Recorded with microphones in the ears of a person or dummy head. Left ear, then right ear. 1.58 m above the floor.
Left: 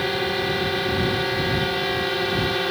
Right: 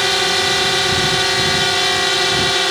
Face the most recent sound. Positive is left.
turn(degrees=-40)  # may be behind; listen again after turning